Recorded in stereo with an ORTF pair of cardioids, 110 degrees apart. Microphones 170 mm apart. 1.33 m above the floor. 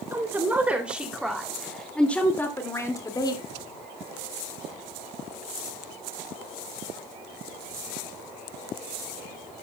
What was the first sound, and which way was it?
A woman speaking, 15° right.